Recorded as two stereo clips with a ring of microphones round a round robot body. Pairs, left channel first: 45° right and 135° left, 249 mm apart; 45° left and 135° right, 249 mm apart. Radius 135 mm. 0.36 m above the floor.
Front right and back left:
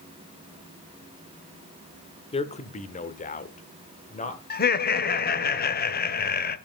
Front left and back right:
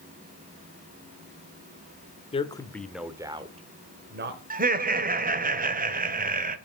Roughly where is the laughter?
Right.